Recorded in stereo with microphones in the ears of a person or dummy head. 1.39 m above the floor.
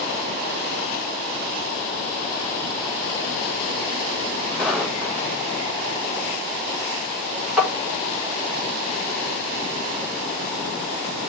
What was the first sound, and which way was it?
Footsteps, 5° left (ahead or behind).